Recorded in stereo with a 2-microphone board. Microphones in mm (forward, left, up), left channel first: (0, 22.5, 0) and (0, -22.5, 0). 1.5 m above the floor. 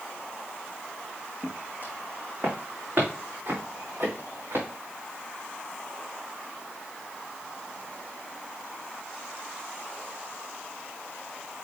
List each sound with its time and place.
1.4 s footsteps: 40° right (ahead or behind), 3 m; by 4.7 s 75° right (ahead or behind), 6.5 m